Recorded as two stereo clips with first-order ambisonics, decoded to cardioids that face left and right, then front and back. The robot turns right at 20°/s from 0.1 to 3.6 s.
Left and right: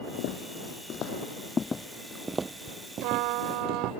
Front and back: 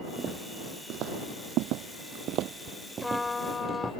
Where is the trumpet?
85° right; by 3.9 s 75° right.